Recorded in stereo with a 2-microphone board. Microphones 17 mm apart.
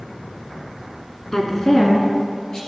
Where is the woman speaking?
25° left (ahead or behind), 1.5 m; by 2.6 s 30° left (ahead or behind), 2.5 m.